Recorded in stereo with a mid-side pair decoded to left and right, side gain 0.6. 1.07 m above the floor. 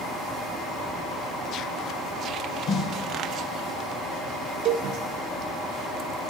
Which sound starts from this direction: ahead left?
A snare drum, at 2.7 s.